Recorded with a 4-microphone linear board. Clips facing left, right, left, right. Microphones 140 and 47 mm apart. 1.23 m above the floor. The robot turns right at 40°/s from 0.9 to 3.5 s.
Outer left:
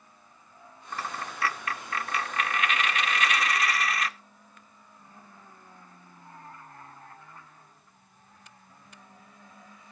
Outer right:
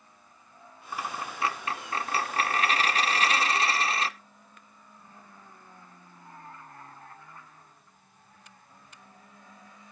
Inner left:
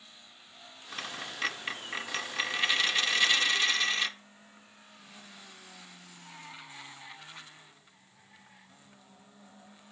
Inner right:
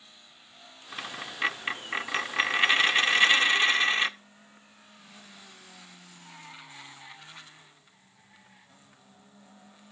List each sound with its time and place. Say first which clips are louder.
0.9 s a dropped coin: outer right 1 dB, inner right 1 dB; 165° right, 0.6 m; by 4.1 s 60° right, 0.6 m